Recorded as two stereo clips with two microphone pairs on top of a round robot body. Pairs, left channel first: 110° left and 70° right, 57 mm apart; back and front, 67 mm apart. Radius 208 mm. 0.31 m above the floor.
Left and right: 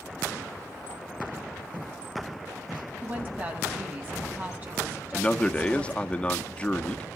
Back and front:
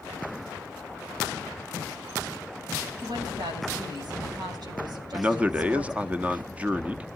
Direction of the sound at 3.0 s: 10° right.